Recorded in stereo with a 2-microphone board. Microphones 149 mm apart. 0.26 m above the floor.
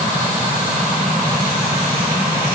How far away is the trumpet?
I don't hear a trumpet.